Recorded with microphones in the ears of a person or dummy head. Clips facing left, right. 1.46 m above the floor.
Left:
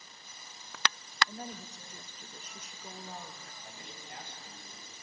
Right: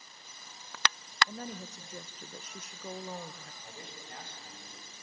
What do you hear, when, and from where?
1.3 s a woman speaking: 55° right (ahead or behind), 0.7 m
3.6 s a man speaking: 55° right (ahead or behind), 8 m